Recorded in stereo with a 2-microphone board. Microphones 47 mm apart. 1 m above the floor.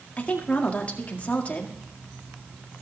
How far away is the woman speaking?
About 1.9 m.